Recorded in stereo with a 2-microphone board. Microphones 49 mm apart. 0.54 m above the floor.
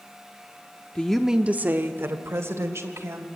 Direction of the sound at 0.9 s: 25° left (ahead or behind).